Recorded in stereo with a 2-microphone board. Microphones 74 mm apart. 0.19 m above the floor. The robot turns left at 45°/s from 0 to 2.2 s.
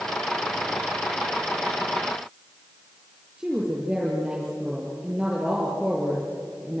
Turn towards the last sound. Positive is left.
turn(degrees=-15)  # may be behind; listen again after turning